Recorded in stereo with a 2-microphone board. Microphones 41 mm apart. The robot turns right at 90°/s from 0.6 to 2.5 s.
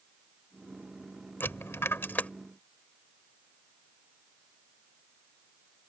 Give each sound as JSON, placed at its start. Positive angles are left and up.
{"t": 1.4, "sound": "a dropped coin", "side_deg": 60}